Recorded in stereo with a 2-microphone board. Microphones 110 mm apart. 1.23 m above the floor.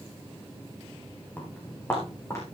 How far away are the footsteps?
About 3.5 m.